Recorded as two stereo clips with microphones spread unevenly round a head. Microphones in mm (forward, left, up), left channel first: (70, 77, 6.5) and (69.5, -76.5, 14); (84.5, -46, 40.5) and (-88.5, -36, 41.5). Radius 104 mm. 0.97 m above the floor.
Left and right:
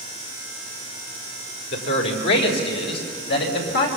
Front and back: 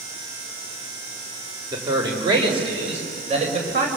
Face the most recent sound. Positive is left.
turn(degrees=120)